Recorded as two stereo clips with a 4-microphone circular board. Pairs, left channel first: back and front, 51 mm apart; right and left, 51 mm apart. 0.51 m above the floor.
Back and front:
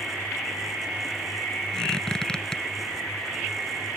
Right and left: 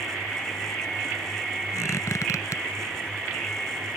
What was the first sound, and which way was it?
A squeak, 105° right.